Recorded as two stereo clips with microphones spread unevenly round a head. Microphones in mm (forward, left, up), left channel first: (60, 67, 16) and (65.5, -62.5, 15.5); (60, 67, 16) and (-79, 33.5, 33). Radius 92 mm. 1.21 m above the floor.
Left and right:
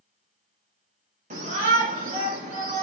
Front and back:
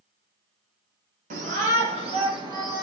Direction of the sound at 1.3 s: 125° right.